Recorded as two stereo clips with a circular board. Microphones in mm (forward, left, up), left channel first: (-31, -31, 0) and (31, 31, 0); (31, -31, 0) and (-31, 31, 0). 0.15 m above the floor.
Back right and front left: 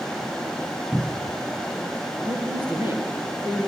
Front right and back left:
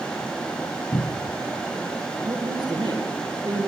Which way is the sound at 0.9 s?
45° right.